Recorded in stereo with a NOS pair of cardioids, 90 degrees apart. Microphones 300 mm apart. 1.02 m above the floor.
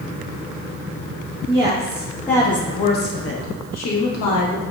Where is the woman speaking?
20° right, 1.0 m; by 4.6 s 80° left, 1.2 m.